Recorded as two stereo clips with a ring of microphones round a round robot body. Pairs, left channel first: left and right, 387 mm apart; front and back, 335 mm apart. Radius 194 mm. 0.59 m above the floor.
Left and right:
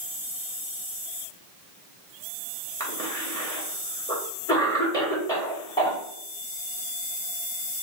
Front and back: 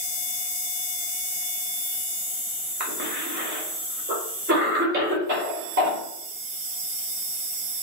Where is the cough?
165° left, 1.1 m.